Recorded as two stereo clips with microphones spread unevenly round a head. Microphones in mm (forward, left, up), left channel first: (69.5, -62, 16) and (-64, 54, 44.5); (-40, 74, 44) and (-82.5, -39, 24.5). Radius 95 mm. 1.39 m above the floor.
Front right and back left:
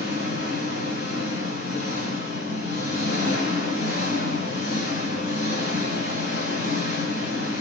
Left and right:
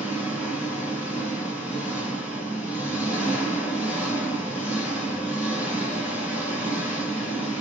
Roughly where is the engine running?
Ahead right.